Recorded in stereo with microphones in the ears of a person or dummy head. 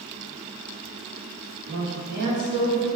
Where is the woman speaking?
50° right (ahead or behind), 1.5 m.